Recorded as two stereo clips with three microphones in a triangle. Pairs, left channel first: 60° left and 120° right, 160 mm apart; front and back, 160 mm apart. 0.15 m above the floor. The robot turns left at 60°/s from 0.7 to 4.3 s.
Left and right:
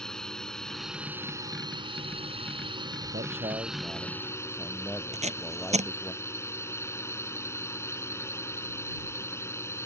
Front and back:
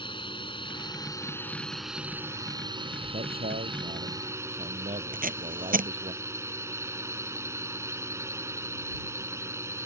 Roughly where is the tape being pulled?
Behind.